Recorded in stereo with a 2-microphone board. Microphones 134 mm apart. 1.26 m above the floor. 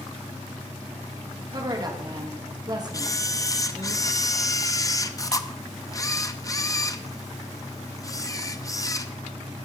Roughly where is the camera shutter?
Left.